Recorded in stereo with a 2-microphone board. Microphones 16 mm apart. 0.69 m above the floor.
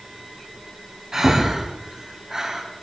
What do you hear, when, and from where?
1.1 s breathing: 35° right (ahead or behind), 3 m